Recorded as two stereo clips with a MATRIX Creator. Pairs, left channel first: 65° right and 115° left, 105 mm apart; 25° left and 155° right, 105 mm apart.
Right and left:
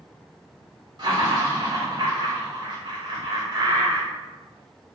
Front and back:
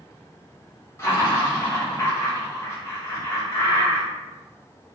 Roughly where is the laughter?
Left.